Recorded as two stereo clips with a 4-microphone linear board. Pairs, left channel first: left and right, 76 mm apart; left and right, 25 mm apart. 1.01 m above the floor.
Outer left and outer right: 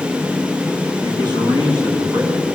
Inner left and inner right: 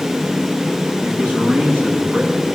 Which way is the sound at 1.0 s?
75° right (ahead or behind).